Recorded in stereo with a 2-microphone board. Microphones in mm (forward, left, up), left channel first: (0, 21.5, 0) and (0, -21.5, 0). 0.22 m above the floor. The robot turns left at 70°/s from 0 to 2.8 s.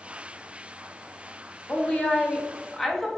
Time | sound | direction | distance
1.7 | a woman speaking | 30° left (ahead or behind) | 1.3 m